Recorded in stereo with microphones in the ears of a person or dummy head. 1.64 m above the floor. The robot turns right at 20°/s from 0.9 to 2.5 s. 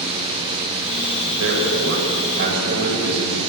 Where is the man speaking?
80° right, 8 m; by 3.4 s 55° right (ahead or behind), 8 m.